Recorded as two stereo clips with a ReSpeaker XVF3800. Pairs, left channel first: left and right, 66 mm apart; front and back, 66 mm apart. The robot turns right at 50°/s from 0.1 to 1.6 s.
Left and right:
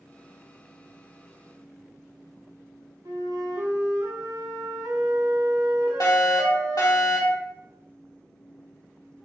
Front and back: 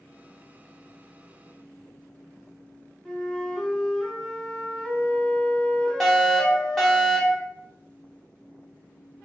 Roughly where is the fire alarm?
Left.